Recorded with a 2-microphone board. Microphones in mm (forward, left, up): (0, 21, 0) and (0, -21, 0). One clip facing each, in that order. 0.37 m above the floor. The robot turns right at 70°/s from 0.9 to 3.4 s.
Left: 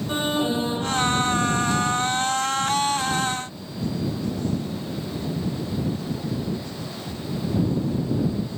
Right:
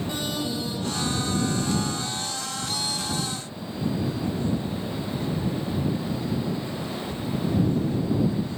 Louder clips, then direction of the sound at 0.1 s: Left 10 dB; 35° left (ahead or behind).